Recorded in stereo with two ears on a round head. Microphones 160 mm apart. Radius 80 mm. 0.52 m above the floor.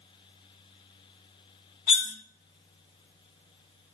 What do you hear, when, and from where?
1.9 s cutlery clinking: 50° left (ahead or behind), 0.8 m